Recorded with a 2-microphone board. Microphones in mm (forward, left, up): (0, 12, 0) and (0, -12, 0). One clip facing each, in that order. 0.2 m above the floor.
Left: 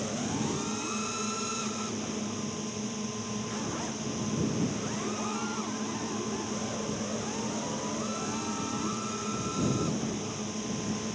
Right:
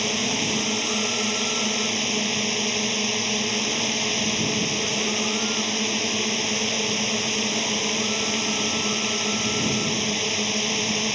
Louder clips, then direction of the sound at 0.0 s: Right 9 dB; 65° right (ahead or behind).